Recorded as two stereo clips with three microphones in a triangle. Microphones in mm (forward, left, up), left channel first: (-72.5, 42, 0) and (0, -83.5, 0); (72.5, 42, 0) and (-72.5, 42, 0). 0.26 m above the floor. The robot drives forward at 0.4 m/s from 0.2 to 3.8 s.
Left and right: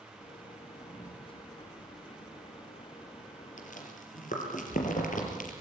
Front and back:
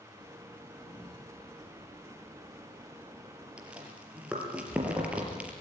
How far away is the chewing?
About 4.5 m.